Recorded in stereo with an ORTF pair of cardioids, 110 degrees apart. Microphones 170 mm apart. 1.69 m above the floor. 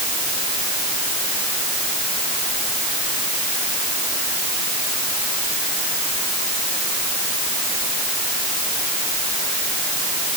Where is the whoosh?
No whoosh in this recording.